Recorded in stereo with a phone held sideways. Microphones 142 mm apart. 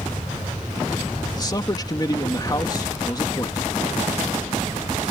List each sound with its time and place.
1.4 s a man speaking: 30° left (ahead or behind)